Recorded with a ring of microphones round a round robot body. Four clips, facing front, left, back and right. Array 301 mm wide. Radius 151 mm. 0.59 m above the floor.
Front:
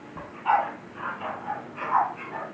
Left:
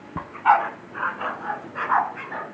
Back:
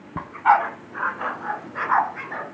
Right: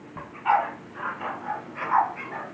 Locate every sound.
0.2 s a dog barking: 140° left, 1.5 m